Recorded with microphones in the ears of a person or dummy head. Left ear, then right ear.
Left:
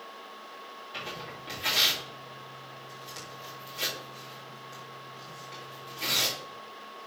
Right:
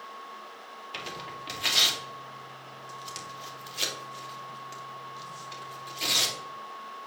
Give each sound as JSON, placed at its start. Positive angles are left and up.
{"t": 0.9, "sound": "tearing paper", "side_deg": -35, "distance_m": 2.5}